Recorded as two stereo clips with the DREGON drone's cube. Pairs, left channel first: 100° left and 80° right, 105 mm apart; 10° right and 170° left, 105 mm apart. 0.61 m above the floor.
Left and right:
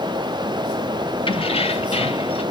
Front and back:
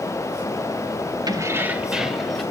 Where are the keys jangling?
125° left, 1.1 m; by 2.4 s 80° left, 2.5 m.